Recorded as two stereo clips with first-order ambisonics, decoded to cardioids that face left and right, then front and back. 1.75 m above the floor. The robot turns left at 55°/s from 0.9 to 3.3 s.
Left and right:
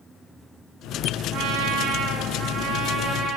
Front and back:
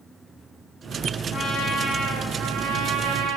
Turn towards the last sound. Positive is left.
turn(degrees=-165)